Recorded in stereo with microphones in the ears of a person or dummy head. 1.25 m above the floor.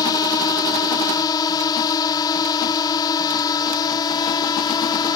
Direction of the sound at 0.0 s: 20° left (ahead or behind).